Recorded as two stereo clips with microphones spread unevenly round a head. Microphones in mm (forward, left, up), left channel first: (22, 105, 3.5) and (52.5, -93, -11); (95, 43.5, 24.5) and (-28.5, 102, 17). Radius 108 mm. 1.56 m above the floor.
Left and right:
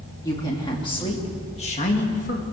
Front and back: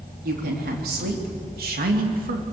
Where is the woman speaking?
170° left, 3 m; by 2.4 s 150° left, 2 m.